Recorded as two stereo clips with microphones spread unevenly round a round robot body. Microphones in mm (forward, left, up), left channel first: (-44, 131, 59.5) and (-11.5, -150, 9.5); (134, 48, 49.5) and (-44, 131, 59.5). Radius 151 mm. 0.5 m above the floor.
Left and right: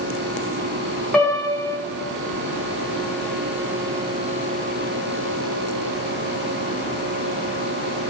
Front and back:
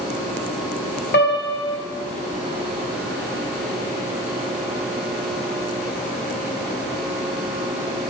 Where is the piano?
5° left, 3 m.